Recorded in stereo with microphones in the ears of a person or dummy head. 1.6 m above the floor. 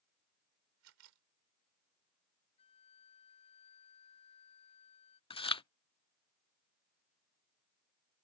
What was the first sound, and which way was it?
A camera shutter, 80° right.